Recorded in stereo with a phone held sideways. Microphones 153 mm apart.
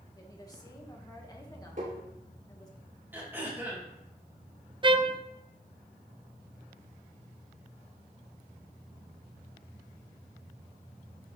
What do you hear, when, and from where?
0.1 s a woman speaking: 25° left (ahead or behind), 1.9 m
1.8 s tapping: 55° right (ahead or behind), 5 m
3.1 s throat clearing: 10° right (ahead or behind), 2.5 m
4.8 s a trumpet: 30° right (ahead or behind), 0.6 m